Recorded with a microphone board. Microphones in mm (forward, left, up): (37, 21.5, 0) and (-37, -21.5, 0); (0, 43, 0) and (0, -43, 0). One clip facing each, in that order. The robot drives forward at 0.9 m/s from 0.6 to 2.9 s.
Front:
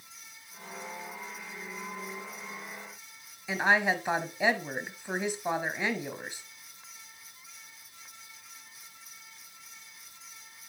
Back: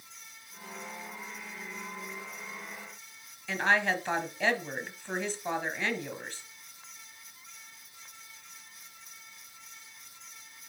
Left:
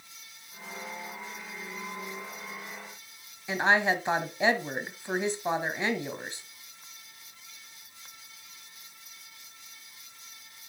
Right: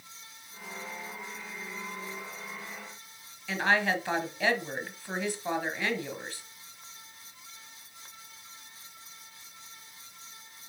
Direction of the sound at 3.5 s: 80° left.